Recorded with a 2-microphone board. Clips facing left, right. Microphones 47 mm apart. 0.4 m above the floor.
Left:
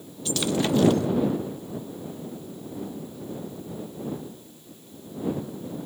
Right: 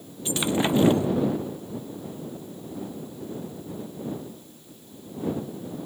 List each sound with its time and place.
0.2 s breaking glass: 20° right (ahead or behind)